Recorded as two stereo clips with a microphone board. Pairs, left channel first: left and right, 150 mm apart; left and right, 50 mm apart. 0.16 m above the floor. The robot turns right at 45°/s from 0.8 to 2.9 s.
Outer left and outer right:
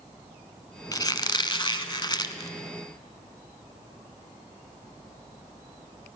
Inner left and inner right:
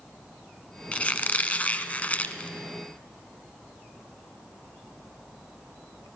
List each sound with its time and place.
0.9 s a squeak: 55° left, 1.0 m; by 2.5 s 125° left, 1.0 m